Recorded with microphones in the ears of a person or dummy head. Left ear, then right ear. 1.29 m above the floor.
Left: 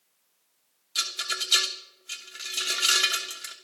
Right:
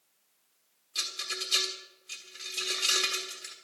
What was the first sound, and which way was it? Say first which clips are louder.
A rattle: left 5 dB; 35° left (ahead or behind).